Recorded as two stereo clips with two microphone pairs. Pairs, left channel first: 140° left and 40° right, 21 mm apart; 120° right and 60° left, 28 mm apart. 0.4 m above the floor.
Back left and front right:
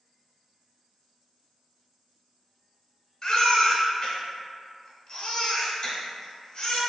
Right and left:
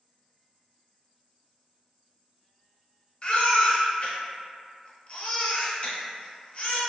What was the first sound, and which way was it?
A baby crying, 165° right.